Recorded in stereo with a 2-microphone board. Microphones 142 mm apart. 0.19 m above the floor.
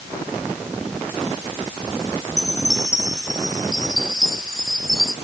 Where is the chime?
5° right (ahead or behind).